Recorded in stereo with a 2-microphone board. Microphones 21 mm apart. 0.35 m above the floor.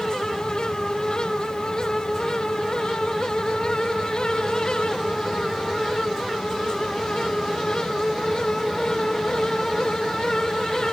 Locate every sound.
Only background noise.